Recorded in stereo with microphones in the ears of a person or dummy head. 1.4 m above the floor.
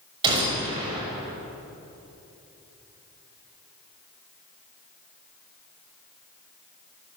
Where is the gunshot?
25° right (ahead or behind), 6.5 m.